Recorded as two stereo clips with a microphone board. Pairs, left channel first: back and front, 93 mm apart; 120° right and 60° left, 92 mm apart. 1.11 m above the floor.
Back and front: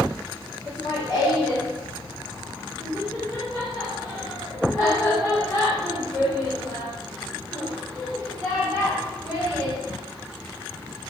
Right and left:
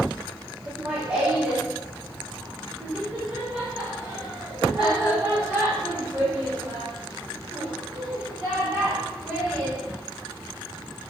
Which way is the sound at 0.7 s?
140° left.